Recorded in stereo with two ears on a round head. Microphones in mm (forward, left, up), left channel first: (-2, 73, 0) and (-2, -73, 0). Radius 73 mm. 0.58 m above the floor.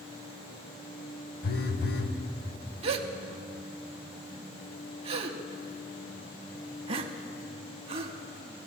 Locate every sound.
1.4 s a phone buzzing: 65° left (ahead or behind), 0.8 m
2.8 s a gasp: 35° right (ahead or behind), 0.6 m